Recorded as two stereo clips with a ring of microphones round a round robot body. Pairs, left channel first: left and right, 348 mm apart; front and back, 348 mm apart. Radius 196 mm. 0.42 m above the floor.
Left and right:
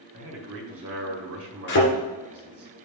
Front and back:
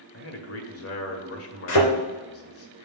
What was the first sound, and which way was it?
A man speaking, 45° right.